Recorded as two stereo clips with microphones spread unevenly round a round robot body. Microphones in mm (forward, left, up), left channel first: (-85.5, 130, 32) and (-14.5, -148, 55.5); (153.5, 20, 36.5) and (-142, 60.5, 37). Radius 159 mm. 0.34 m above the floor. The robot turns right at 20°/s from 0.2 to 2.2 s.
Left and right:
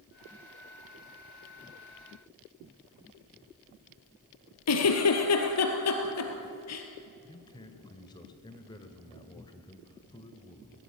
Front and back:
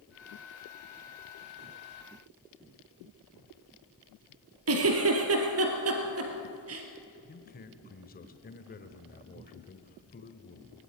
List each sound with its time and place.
4.7 s a giggle: 135° left, 3 m
7.3 s a man speaking: 40° left, 1.5 m